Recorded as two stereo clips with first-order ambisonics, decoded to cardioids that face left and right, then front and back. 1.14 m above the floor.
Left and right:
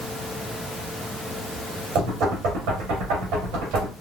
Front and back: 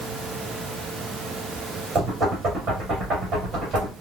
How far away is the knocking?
About 2 m.